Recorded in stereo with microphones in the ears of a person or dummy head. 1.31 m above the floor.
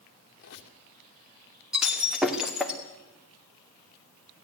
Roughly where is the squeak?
Left.